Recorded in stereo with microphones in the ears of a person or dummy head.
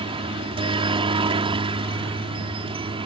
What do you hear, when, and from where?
0.0 s a helicopter: 25° right (ahead or behind)